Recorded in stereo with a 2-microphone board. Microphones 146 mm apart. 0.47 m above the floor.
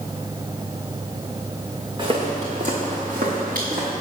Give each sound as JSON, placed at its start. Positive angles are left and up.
{"t": 2.0, "sound": "footsteps", "side_deg": -35, "distance_m": 2.5}